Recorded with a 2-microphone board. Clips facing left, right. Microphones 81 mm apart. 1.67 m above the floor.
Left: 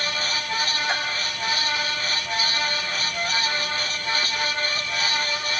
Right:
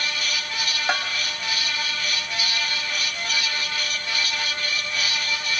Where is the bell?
65° right (ahead or behind), 2.5 m.